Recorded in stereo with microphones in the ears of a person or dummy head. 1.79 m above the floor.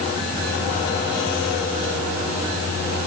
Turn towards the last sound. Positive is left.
No sound to turn to.